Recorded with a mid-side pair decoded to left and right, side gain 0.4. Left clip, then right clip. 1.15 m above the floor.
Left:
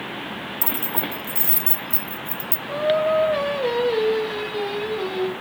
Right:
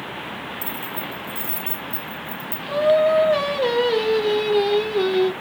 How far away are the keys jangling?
About 0.8 m.